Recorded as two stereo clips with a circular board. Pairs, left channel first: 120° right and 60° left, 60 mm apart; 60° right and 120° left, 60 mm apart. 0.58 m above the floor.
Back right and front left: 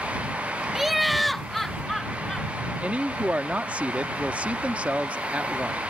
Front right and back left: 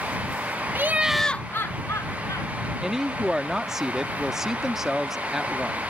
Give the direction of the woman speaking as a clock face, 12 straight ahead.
10 o'clock.